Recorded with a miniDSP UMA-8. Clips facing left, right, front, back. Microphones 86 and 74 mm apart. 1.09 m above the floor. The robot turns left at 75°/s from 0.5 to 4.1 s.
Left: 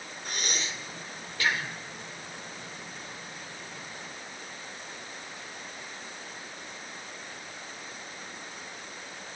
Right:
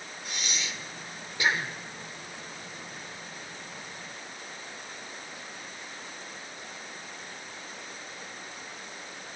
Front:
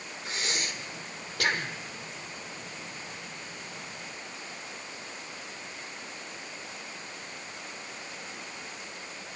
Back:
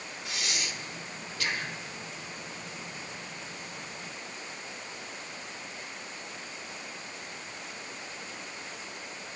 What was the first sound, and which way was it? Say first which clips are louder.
Breathing: left 2 dB, front 2 dB; 50° left.